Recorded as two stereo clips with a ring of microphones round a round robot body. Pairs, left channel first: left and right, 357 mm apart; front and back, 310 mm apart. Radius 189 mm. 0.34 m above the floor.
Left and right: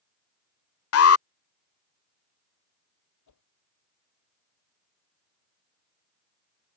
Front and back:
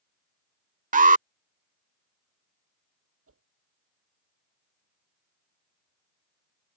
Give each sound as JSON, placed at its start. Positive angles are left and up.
{"t": 0.9, "sound": "an alarm", "azimuth_deg": 125}
{"t": 3.3, "sound": "a whoosh", "azimuth_deg": 135}